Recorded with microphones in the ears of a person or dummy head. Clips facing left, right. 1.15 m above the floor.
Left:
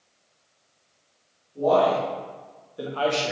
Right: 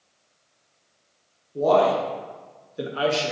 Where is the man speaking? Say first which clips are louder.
Right 1 dB; 60° right (ahead or behind), 1.3 m; by 3.3 s 5° left (ahead or behind), 0.6 m.